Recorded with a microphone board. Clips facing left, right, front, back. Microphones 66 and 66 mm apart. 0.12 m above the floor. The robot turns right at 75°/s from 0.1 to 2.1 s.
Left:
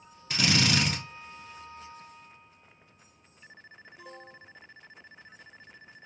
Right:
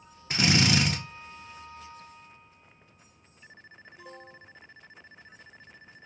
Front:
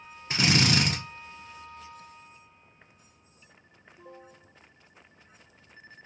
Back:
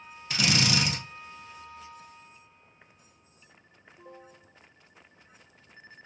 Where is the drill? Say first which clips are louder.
Right 2 dB, front 2 dB; 45° right, 1.0 m; by 1.0 s 5° left, 1.0 m.